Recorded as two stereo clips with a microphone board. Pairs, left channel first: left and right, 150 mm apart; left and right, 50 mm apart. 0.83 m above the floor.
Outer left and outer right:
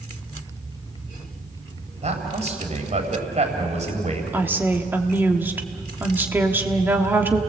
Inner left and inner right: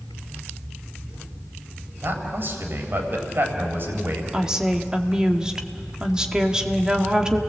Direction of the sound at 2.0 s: 50° right (ahead or behind).